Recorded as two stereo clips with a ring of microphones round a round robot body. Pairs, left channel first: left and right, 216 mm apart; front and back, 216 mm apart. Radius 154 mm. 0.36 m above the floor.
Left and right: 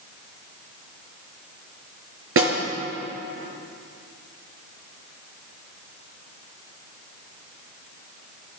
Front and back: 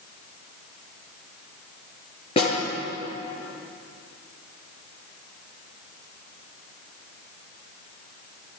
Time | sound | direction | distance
2.4 | a snare drum | 70° right | 6.5 m